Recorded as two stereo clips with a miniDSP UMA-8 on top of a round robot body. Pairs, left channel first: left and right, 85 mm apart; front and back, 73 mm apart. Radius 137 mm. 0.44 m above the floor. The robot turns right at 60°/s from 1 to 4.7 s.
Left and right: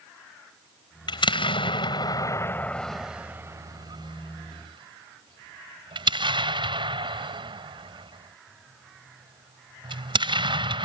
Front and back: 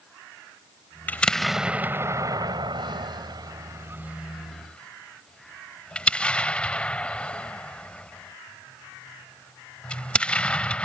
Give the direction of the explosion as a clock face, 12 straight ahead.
10 o'clock.